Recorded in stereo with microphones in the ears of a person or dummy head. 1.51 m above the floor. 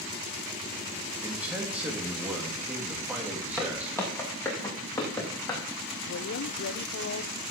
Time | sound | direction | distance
1.2 | a man speaking | 5° right (ahead or behind) | 3 m
3.6 | footsteps | 10° left (ahead or behind) | 3.5 m
6.0 | a woman speaking | 55° left (ahead or behind) | 0.7 m